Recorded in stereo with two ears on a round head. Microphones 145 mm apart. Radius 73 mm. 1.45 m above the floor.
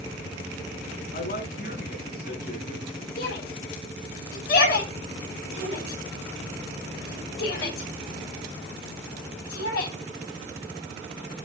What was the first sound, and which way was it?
A woman speaking, 55° left (ahead or behind).